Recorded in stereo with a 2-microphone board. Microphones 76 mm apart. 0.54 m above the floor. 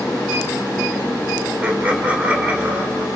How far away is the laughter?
About 2 m.